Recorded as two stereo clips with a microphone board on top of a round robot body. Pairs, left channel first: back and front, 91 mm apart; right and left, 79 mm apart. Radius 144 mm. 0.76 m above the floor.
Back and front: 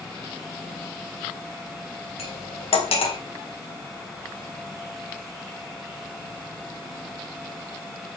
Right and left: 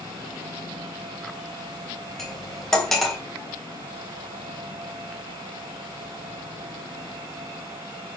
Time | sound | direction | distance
2.2 | cutlery clinking | 175° right | 3 m